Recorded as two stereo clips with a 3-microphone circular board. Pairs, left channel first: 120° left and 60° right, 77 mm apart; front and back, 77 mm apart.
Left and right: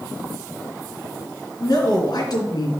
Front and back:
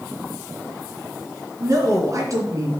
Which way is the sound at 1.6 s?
140° left.